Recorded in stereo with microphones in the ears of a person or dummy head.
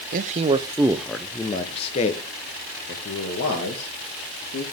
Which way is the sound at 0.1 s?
45° right (ahead or behind).